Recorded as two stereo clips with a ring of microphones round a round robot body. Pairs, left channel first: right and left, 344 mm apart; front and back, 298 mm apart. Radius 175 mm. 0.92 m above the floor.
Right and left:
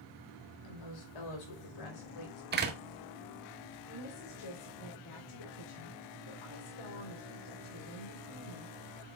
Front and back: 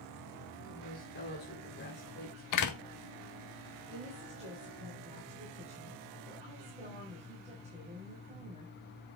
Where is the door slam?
25° left, 1.6 m.